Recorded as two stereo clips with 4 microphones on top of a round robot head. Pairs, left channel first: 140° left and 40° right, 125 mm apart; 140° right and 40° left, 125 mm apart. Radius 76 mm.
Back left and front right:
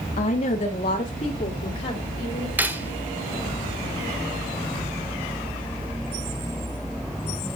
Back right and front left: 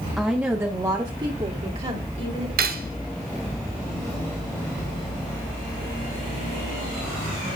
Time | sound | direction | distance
0.2 | a woman speaking | 125° left | 1.8 m
2.6 | cutlery clinking | 40° left | 1.3 m